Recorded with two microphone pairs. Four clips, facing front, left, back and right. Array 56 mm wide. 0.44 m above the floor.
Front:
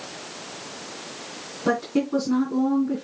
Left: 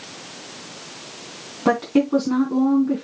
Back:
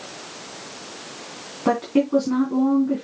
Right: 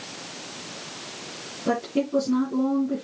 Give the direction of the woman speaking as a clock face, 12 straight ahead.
8 o'clock.